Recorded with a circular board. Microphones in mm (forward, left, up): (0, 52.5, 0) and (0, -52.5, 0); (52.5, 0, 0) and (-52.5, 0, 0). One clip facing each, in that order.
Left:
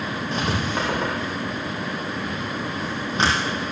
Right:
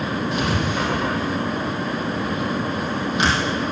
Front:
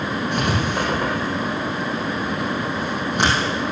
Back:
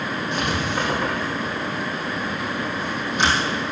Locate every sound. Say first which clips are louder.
0.3 s writing: even, front 2 dB; 35° left, 4 m